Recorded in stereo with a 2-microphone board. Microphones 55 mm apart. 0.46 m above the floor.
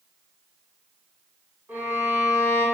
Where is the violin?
35° right (ahead or behind), 1.3 m.